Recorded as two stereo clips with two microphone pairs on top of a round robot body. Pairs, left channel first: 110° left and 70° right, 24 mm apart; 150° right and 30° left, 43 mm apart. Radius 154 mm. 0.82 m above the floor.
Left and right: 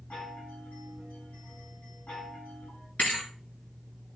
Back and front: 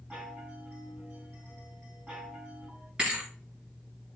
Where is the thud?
95° left, 1.6 m.